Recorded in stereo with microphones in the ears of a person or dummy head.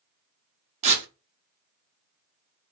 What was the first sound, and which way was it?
Tearing paper, 35° right (ahead or behind).